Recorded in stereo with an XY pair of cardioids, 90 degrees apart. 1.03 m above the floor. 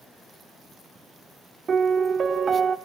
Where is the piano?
50° right, 1.4 m.